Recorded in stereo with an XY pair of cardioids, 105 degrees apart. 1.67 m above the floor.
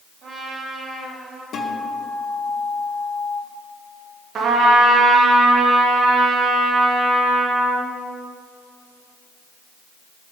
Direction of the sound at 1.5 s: 65° left.